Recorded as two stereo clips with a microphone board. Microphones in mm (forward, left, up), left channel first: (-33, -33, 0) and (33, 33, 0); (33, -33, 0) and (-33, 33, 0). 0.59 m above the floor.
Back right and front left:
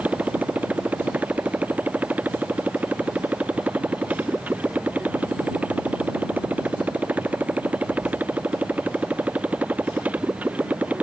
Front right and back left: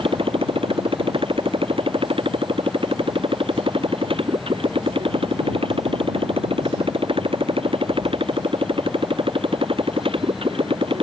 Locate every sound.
0.0 s a motorcycle: 120° left